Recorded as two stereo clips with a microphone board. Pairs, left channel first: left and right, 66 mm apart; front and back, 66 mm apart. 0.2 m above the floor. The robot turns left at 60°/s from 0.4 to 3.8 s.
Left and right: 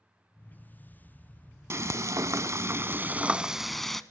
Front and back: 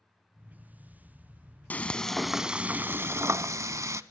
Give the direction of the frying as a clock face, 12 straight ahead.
2 o'clock.